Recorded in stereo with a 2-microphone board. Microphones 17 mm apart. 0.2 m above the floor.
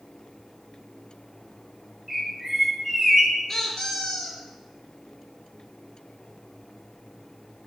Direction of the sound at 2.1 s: 25° right (ahead or behind).